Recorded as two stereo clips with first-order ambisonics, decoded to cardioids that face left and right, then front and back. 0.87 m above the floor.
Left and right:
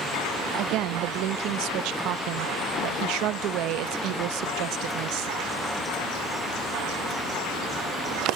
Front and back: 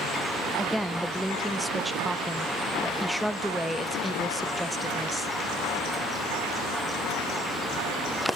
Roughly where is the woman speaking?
Right.